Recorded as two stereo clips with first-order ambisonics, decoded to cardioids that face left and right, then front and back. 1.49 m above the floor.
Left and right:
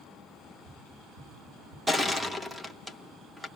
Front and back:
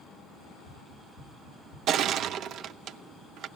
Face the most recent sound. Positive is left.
turn(degrees=-175)